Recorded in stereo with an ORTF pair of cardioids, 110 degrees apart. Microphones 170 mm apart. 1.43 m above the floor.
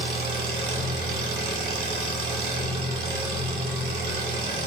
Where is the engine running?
65° right, 1.5 m.